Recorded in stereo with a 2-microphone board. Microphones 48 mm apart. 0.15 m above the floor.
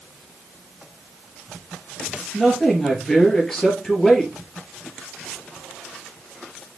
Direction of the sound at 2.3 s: 10° left (ahead or behind).